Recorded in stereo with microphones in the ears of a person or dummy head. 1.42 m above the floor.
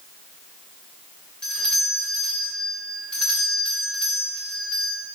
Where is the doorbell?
5° left (ahead or behind), 2 m.